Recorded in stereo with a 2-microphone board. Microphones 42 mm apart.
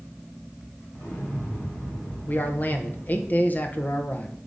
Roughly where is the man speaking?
Left.